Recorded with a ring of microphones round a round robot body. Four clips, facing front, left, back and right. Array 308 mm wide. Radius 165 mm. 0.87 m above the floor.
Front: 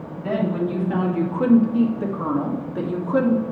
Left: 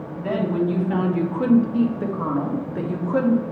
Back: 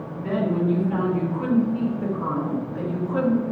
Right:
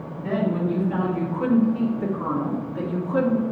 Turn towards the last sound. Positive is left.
turn(degrees=25)